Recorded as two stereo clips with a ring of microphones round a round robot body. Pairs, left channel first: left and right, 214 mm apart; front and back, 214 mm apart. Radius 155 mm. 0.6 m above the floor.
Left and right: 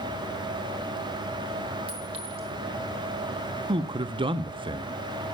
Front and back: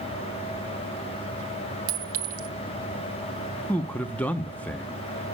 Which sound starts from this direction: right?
A man speaking, at 3.7 s.